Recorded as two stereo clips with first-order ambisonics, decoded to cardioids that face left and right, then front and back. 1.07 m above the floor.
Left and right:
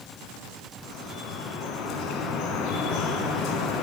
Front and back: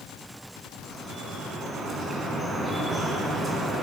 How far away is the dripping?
About 1.8 m.